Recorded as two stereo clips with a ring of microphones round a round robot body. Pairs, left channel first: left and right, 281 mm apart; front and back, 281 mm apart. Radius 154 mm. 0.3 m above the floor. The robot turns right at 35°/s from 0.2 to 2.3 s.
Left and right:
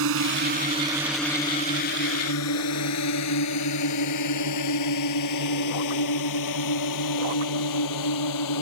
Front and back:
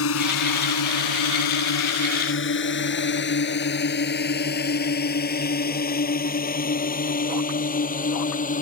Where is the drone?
45° right; by 8.6 s 65° left.